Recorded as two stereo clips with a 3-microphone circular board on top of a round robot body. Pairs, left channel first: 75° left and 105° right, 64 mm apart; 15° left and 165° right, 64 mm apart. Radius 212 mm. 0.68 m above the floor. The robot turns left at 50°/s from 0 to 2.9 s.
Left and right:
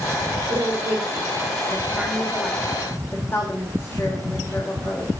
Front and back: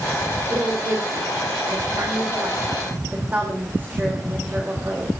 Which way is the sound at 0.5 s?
110° right.